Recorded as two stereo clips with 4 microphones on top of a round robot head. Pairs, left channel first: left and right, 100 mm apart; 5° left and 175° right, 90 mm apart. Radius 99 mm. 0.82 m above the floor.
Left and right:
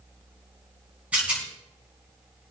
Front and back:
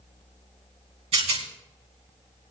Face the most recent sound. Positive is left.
turn(degrees=-170)